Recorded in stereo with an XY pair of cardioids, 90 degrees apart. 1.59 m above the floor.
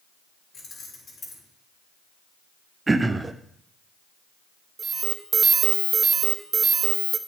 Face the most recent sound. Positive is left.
turn(degrees=-45)